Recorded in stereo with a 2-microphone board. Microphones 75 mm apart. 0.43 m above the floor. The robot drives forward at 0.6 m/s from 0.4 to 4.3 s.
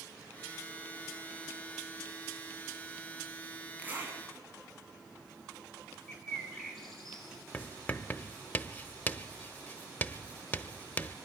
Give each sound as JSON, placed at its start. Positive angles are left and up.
{"t": 3.8, "sound": "a zipper", "side_deg": -20, "distance_m": 4.5}
{"t": 6.1, "sound": "a bird", "side_deg": 5, "distance_m": 5.0}
{"t": 7.5, "sound": "writing", "side_deg": 25, "distance_m": 0.7}